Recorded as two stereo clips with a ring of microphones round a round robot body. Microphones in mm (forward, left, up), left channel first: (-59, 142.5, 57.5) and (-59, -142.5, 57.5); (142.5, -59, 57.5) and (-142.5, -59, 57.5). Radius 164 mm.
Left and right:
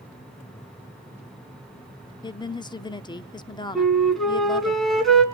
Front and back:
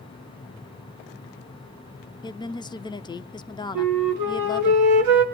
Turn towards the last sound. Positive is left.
turn(degrees=180)